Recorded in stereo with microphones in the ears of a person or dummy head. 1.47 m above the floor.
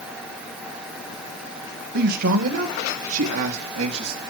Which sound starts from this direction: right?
A man speaking, at 1.9 s.